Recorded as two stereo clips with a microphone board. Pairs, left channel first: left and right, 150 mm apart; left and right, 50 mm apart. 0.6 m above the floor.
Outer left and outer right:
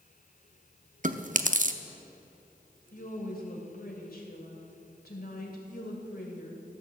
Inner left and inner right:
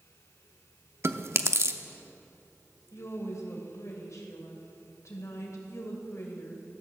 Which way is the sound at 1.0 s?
55° right (ahead or behind).